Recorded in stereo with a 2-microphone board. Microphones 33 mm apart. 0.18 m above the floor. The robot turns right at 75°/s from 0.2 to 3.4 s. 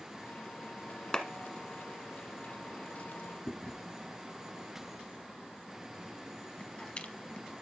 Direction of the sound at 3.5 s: 35° left (ahead or behind).